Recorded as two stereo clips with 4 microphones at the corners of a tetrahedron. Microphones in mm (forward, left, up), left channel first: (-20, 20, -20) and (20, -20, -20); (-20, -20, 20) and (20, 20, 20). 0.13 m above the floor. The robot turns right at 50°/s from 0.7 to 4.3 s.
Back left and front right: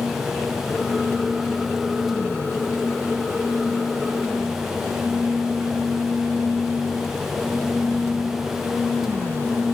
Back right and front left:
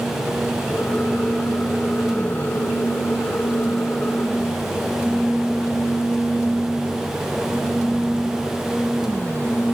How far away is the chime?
I don't hear a chime.